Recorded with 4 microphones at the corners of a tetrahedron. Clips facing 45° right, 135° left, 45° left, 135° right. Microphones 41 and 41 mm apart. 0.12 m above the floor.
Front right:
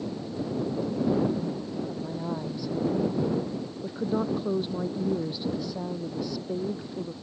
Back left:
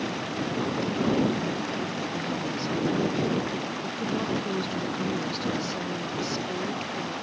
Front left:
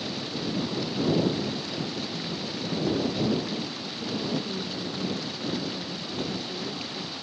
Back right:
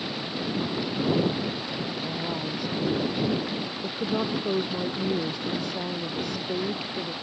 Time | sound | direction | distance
0.0 | running water | 150° left | ?
1.9 | a woman speaking | 115° right | ?